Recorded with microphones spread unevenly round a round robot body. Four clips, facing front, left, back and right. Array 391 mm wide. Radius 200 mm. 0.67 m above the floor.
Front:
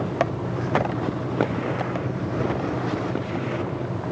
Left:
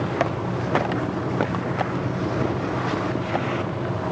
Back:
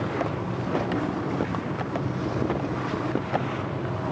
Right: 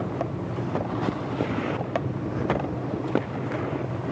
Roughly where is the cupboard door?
No cupboard door in this recording.